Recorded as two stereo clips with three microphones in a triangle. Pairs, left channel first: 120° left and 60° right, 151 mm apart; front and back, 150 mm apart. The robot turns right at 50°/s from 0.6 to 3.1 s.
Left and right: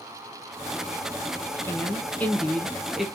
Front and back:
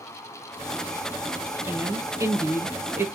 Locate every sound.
1.6 s a woman speaking: 145° left, 0.7 m; by 3.1 s 145° right, 0.7 m